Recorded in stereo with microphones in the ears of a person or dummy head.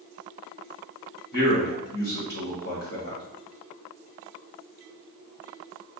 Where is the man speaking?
60° left (ahead or behind), 1.7 m.